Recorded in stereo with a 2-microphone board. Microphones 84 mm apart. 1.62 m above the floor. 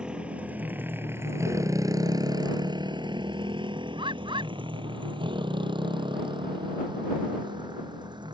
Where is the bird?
85° right.